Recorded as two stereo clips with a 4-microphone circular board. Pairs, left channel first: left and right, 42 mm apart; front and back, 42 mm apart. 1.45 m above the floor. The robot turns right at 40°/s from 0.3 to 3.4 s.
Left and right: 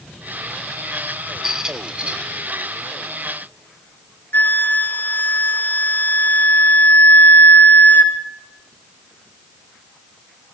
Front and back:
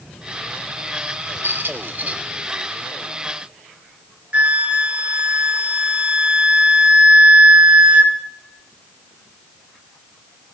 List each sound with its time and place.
1.4 s a squeak: 170° right, 2 m; by 2.2 s 140° right, 2 m
4.3 s a flute: 120° left, 2 m